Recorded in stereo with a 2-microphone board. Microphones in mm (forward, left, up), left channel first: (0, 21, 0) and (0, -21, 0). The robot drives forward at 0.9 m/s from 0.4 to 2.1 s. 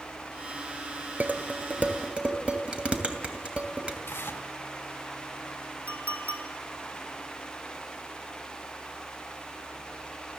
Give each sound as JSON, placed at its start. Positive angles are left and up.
{"t": 1.2, "sound": "dishes clattering", "side_deg": -40, "distance_m": 1.5}
{"t": 4.1, "sound": "tearing paper", "side_deg": 60, "distance_m": 2.5}
{"t": 5.9, "sound": "a clink", "side_deg": -50, "distance_m": 2.5}